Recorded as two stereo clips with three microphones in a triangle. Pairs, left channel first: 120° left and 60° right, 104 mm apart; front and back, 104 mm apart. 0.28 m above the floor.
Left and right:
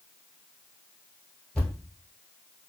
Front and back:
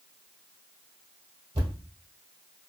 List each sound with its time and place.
1.6 s a thud: 155° right, 1.3 m